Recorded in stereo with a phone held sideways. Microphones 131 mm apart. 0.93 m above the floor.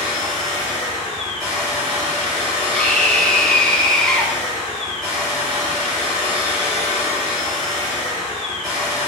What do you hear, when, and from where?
0.0 s a machine running: 30° right (ahead or behind), 2 m
2.7 s a scream: 5° left (ahead or behind), 1.0 m